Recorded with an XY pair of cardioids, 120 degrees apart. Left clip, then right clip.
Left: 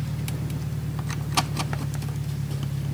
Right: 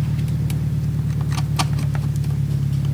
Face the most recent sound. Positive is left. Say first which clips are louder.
# right 6 dB
turn(degrees=-45)